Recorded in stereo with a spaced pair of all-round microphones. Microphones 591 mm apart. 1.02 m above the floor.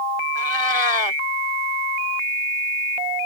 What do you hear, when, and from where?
0.3 s a cat meowing: 50° left (ahead or behind)